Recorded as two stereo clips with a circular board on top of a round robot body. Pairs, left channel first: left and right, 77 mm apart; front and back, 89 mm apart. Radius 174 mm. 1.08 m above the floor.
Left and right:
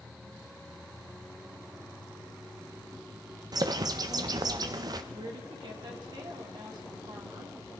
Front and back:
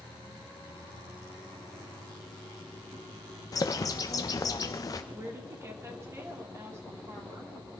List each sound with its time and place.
3.5 s a bird: 50° right, 0.5 m
5.1 s a woman speaking: 120° right, 2.5 m